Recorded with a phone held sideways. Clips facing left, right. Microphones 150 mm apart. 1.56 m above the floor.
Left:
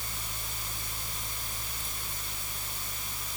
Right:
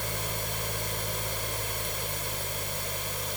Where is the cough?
No cough in this recording.